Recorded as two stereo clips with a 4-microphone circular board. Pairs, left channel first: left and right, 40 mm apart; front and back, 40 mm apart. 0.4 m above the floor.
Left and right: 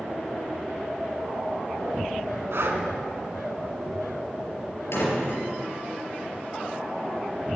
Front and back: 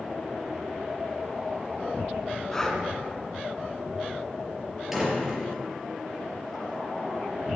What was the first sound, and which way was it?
Breathing, 75° right.